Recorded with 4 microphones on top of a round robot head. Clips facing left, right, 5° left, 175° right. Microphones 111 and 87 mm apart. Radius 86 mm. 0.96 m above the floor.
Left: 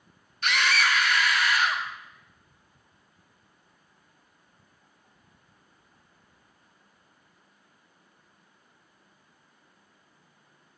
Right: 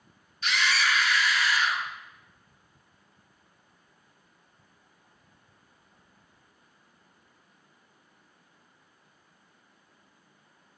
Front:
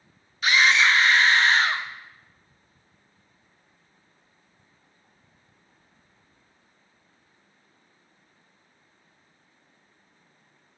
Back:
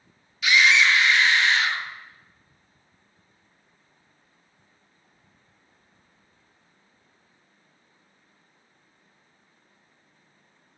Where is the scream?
60° left, 0.5 m.